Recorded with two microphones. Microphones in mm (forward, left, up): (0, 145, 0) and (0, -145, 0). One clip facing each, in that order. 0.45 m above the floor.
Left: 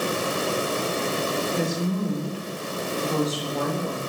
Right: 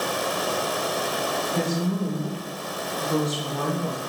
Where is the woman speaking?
45° right (ahead or behind), 1.3 m; by 4.0 s 25° left (ahead or behind), 1.0 m.